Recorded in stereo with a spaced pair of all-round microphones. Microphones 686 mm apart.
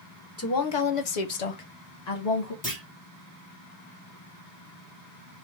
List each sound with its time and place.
0.4 s a woman speaking: 20° left (ahead or behind), 0.6 m; by 2.5 s 70° left (ahead or behind), 1.4 m
2.6 s a clunk: 10° left (ahead or behind), 2.0 m